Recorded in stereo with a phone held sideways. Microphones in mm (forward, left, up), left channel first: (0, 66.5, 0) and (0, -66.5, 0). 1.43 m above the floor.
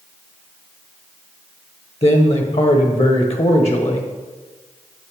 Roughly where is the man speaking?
Left.